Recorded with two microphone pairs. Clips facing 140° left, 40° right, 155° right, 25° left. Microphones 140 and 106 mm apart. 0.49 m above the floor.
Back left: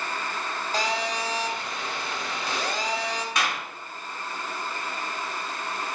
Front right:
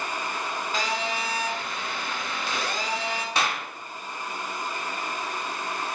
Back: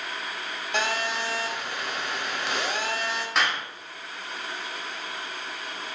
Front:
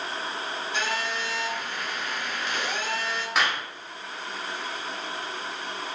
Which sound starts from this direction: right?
A clap, at 3.4 s.